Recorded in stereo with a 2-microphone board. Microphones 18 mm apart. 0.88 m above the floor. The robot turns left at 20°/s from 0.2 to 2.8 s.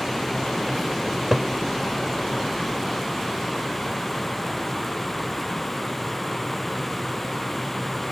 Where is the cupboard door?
15° right (ahead or behind); by 1.5 s 5° right (ahead or behind).